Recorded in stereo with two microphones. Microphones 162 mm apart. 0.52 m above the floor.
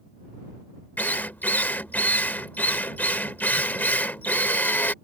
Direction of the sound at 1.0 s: 10° left (ahead or behind).